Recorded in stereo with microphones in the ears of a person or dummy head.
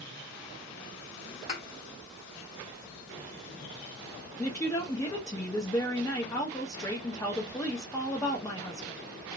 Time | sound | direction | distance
1.5 | a thud | 25° left (ahead or behind) | 1.2 m
4.4 | a woman speaking | 15° left (ahead or behind) | 0.6 m